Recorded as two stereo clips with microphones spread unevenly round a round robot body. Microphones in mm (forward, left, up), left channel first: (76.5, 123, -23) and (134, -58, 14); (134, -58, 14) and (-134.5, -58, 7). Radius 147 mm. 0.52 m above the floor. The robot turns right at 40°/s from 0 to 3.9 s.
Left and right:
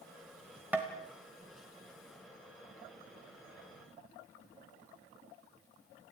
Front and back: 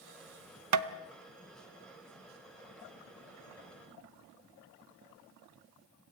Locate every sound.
0.7 s tapping: 160° right, 0.9 m; by 0.9 s 155° right, 0.9 m